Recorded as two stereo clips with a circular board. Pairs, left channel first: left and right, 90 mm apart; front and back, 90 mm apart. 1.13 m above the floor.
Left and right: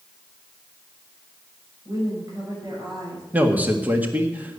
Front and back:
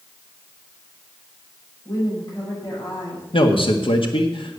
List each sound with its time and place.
1.9 s a woman speaking: 40° right, 7 m
3.3 s a man speaking: 15° right, 1.7 m